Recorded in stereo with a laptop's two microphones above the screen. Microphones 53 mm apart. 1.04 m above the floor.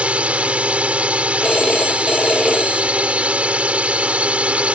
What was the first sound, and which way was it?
A drone, 20° right (ahead or behind).